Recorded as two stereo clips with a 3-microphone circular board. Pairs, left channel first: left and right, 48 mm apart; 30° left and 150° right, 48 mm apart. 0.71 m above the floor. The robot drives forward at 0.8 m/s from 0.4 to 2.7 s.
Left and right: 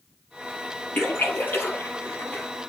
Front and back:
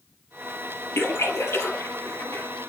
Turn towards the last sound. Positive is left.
turn(degrees=50)